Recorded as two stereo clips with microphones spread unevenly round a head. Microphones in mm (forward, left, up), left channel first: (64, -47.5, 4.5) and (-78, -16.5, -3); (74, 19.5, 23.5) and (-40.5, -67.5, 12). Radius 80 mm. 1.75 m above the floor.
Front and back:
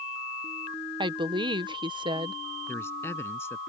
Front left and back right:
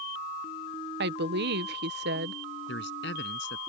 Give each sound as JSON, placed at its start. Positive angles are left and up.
{"t": 1.0, "sound": "a woman speaking", "azimuth_deg": -130}
{"t": 2.7, "sound": "a man speaking", "azimuth_deg": 65}